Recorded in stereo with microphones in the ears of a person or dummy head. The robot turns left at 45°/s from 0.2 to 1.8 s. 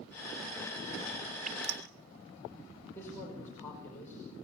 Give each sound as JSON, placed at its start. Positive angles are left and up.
{"t": 1.4, "sound": "dripping", "side_deg": -45, "distance_m": 3.0}
{"t": 3.0, "sound": "a man speaking", "side_deg": 15, "distance_m": 5.5}